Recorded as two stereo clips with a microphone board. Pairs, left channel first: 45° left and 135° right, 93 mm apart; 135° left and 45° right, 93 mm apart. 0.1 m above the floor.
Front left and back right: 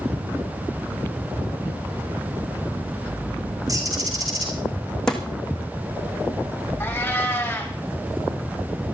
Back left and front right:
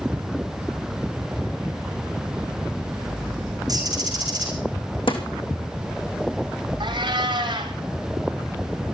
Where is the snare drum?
125° left, 2.5 m.